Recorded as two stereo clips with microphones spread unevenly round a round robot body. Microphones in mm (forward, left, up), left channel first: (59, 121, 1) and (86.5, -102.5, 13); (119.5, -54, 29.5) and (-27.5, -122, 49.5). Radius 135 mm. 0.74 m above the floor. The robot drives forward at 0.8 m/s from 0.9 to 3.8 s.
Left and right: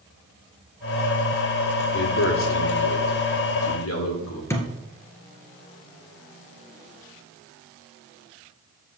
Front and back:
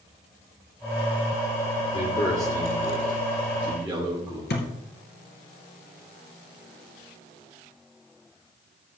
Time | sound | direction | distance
1.9 | a man speaking | 80° left | 2.0 m
4.5 | a thud | 20° left | 2.5 m